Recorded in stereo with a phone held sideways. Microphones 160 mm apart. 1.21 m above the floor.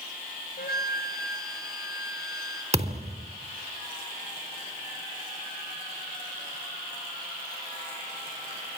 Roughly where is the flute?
Left.